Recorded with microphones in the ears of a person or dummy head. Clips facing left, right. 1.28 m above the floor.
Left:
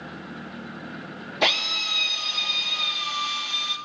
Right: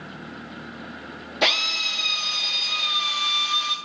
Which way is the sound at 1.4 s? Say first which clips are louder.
Even; 5° right (ahead or behind).